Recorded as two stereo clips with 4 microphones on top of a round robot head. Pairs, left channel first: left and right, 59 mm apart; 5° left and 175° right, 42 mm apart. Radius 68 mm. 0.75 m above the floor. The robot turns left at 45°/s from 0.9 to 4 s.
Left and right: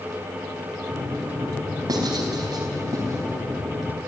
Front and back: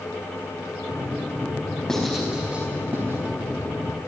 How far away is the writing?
About 4.5 m.